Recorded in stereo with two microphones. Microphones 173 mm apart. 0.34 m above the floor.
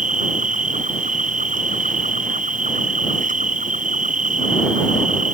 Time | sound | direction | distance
0.0 | an insect | 50° right (ahead or behind) | ?